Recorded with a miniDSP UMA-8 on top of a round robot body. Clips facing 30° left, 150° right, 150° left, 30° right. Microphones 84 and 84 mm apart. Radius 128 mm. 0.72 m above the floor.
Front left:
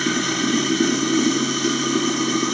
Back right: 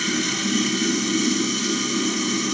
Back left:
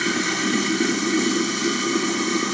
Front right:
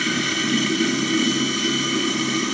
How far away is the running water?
About 0.8 m.